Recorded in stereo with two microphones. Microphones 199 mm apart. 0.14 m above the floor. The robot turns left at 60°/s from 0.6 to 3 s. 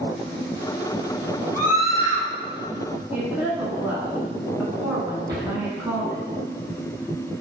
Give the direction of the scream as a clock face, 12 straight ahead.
9 o'clock.